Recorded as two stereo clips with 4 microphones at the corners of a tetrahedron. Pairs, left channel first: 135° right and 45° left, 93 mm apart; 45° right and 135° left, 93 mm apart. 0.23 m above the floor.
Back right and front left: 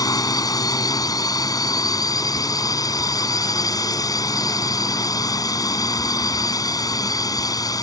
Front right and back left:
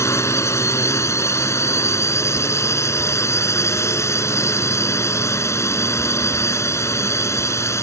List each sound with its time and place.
0.0 s a drone: 100° right